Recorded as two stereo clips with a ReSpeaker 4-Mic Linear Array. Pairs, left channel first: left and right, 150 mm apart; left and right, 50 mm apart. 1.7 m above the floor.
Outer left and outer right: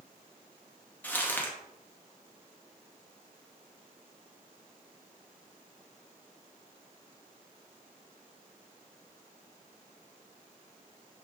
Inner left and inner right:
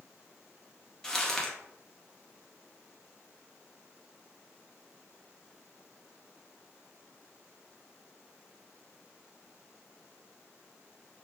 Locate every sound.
1.0 s crumpling: 10° left (ahead or behind), 0.6 m